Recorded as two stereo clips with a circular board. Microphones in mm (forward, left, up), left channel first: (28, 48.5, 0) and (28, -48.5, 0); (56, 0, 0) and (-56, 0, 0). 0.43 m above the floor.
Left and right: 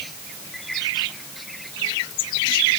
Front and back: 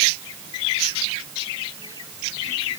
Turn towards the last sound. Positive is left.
No sound to turn to.